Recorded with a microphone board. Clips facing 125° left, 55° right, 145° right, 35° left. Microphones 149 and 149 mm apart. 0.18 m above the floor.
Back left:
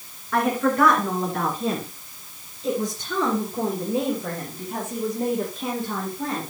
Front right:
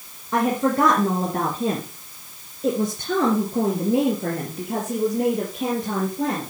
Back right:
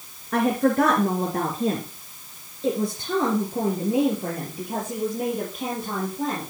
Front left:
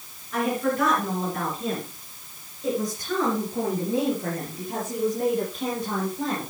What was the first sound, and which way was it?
A woman speaking, 125° right.